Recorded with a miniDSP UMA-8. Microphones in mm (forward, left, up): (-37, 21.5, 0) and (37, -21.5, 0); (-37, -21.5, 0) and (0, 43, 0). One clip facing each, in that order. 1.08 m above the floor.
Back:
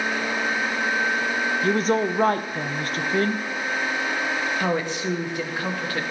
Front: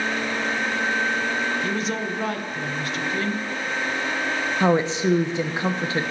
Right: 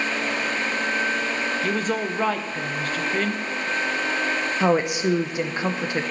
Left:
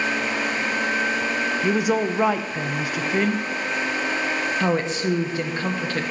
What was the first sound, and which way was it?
A woman speaking, 135° left.